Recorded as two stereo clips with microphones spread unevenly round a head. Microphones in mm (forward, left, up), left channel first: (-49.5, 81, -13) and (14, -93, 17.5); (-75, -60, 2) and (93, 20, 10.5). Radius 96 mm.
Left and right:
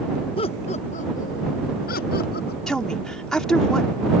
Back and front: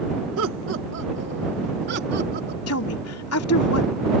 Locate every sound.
0.4 s laughter: 45° left; by 2.6 s 70° left
2.7 s a woman speaking: 160° right